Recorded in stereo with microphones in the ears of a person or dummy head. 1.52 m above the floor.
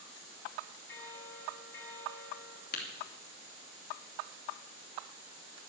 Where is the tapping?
45° left (ahead or behind), 2.5 m.